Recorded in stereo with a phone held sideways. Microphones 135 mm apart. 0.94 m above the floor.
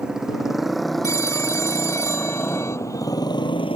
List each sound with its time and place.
0.0 s a motorcycle: 5° right (ahead or behind); by 3.8 s 45° left (ahead or behind)
1.0 s a phone ringing: 20° left (ahead or behind)